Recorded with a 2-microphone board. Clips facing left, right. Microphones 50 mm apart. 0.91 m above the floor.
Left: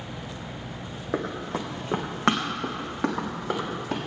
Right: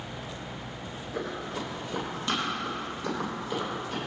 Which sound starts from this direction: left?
Running footsteps, at 1.1 s.